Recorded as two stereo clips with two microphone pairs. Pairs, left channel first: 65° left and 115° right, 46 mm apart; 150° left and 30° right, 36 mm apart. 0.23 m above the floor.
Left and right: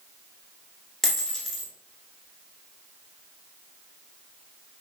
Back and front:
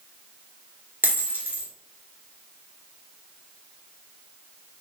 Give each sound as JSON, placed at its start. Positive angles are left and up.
{"t": 1.0, "sound": "a dropped coin", "azimuth_deg": -20, "distance_m": 1.0}